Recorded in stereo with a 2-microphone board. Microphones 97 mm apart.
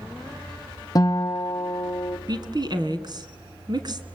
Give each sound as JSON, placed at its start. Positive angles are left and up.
{"t": 0.9, "sound": "a guitar", "side_deg": 40, "distance_m": 0.9}
{"t": 2.3, "sound": "a woman speaking", "side_deg": -50, "distance_m": 1.9}